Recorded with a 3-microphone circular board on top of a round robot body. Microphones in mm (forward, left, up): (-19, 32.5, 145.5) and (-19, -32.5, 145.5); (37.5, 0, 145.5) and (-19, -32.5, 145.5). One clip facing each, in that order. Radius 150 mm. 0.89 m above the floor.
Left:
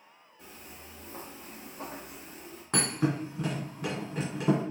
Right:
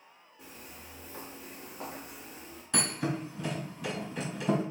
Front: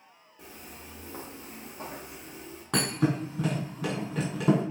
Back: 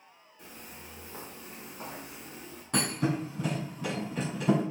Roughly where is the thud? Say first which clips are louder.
Left 3 dB, front 2 dB; ahead left.